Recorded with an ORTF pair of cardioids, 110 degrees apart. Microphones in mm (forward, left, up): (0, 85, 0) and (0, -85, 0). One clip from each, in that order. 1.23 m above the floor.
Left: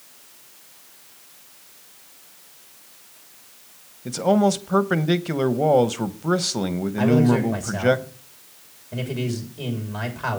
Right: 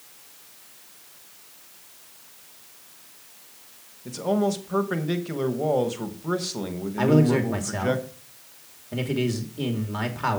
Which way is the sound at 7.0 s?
20° right.